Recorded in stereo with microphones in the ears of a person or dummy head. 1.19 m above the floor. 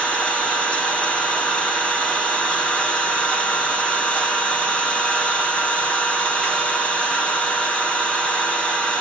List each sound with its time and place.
0.0 s an engine running: 5° left (ahead or behind), 1.5 m